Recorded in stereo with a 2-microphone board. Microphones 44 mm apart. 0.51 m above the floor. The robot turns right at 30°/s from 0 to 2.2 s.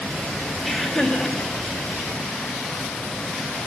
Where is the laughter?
Centre (ahead or behind), 1.7 m; by 1.4 s 20° left (ahead or behind), 1.7 m.